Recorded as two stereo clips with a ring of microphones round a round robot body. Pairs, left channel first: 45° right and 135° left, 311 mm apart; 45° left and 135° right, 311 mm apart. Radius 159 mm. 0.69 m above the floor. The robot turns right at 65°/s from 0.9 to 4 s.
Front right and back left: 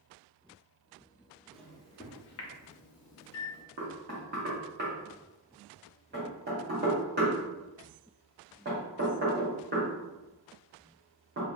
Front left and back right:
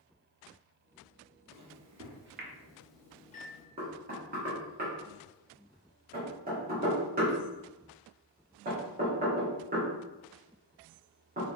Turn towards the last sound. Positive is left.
turn(degrees=175)